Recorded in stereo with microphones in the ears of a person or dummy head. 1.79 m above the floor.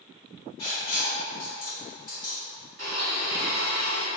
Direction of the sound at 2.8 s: 65° right (ahead or behind).